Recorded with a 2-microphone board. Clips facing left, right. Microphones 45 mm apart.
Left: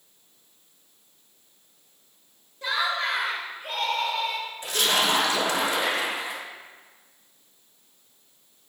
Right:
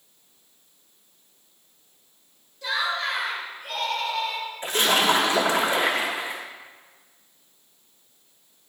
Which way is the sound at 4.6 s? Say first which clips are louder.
Right 3 dB; 35° right (ahead or behind).